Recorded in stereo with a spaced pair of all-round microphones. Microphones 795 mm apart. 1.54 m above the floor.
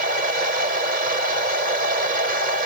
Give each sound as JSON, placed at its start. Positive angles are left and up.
{"t": 0.0, "sound": "a machine running", "side_deg": -65}